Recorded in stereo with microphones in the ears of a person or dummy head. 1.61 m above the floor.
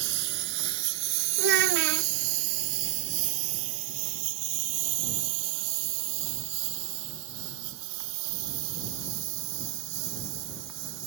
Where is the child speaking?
70° right (ahead or behind).